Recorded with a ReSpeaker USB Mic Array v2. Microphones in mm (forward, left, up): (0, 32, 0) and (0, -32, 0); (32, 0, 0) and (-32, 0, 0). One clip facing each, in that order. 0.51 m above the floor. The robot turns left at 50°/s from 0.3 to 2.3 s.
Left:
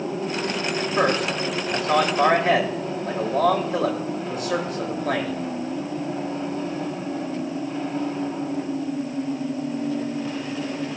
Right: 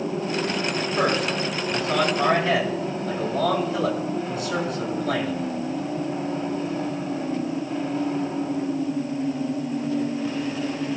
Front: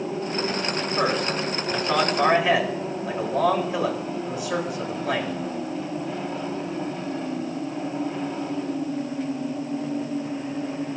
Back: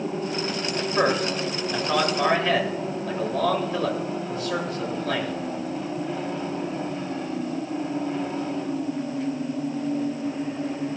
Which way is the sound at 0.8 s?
150° left.